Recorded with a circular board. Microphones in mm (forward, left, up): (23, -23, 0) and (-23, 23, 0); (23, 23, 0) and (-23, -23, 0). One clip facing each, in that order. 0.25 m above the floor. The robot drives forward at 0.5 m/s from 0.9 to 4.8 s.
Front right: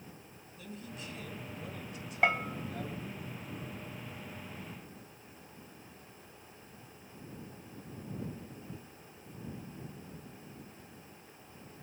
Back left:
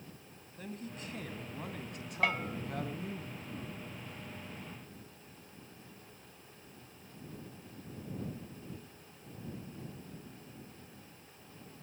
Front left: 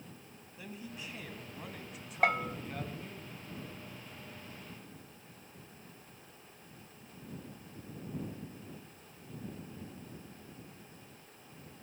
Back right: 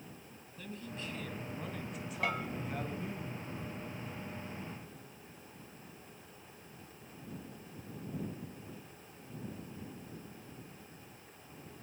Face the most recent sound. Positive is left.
turn(degrees=160)